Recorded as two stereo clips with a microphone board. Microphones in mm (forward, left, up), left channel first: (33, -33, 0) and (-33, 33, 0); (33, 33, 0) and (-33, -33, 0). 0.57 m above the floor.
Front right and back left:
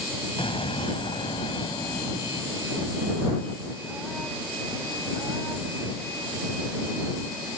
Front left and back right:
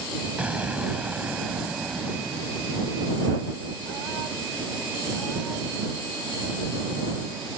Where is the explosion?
60° right.